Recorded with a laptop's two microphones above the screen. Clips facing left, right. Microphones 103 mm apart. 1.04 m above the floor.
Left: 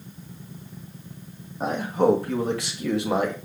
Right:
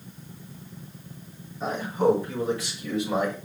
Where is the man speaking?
60° left (ahead or behind), 1.6 m; by 3.4 s 70° left (ahead or behind), 1.6 m.